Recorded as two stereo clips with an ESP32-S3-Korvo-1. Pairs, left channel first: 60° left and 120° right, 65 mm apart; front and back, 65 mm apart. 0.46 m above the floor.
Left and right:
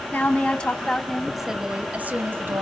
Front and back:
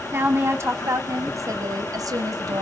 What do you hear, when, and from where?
0.1 s a woman speaking: 130° left, 3.5 m; by 2.6 s 170° right, 3 m